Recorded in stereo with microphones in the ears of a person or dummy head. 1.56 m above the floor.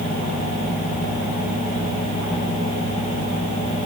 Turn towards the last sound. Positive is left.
No sound to turn to.